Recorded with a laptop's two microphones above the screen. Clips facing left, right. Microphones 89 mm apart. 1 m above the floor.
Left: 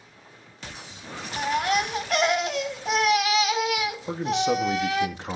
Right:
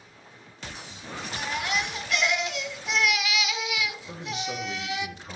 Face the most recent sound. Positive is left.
turn(degrees=70)  # may be behind; listen again after turning